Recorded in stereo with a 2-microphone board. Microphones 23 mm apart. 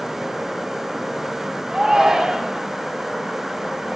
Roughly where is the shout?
Right.